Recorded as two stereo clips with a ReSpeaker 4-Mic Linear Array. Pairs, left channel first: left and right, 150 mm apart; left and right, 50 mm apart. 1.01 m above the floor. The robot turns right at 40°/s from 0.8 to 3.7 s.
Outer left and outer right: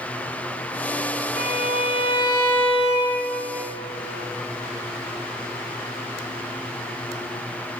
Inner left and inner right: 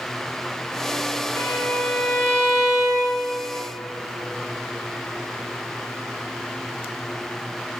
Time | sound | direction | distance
1.4 | a violin | 120° left | 1.1 m